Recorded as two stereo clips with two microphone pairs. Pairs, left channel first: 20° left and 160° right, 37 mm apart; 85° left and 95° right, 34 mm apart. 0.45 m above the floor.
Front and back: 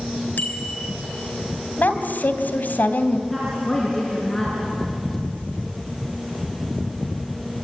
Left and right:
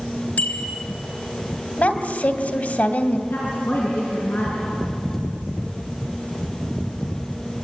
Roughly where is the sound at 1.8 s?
Ahead left.